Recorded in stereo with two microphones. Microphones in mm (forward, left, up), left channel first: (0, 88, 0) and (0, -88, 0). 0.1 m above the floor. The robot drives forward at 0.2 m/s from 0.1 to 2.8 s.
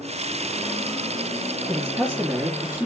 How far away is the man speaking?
About 3.5 m.